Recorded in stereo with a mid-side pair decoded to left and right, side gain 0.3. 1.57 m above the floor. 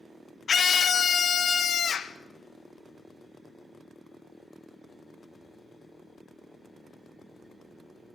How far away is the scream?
About 0.9 m.